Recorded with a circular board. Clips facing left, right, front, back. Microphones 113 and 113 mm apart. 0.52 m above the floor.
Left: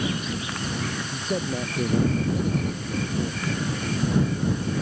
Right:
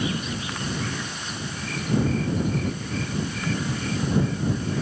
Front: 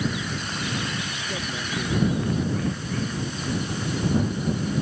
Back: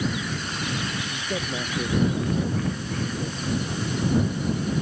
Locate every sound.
1.1 s a man speaking: 115° left